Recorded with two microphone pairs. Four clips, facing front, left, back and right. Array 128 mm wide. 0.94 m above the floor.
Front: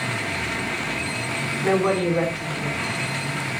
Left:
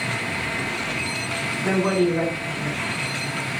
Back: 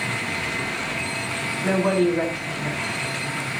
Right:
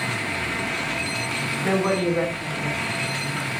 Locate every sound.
1.6 s a woman speaking: 5° right, 7.5 m